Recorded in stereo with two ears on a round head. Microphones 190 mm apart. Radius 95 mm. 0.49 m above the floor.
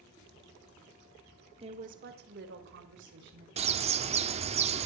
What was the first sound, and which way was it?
A woman speaking, 25° right (ahead or behind).